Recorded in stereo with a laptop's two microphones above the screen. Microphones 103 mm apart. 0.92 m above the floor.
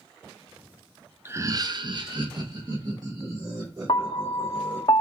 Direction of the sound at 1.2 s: 20° right (ahead or behind).